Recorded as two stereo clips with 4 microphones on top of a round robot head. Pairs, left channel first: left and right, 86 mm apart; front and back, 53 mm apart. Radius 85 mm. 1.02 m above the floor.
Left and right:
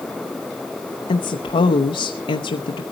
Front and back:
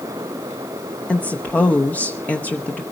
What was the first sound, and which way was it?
A woman speaking, 65° left.